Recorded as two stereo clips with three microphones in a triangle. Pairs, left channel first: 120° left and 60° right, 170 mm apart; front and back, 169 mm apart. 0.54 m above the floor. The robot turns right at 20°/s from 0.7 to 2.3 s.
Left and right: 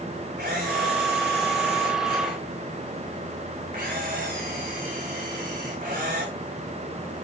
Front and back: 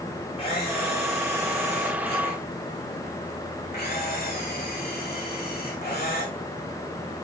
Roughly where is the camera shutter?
Ahead right.